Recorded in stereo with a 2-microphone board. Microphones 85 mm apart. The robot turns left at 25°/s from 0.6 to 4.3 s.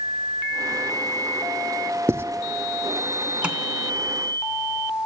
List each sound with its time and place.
2.1 s writing: 35° right (ahead or behind), 0.8 m; by 2.2 s 30° right (ahead or behind), 0.8 m
3.4 s tapping: 15° right (ahead or behind), 2 m; by 3.6 s 10° right (ahead or behind), 2 m